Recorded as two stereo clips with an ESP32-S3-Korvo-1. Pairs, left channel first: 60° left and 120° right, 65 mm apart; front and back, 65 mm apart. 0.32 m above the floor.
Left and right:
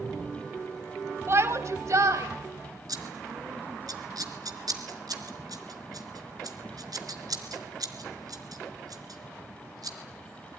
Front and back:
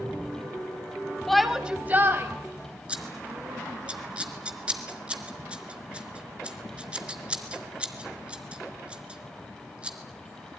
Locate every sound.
1.3 s a shout: 85° right, 1.8 m; by 3.9 s straight behind, 3.5 m
2.9 s scissors: 105° right, 3.5 m